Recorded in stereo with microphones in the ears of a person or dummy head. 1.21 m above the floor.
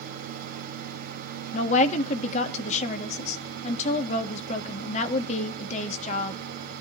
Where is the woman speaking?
40° left (ahead or behind), 1.7 m.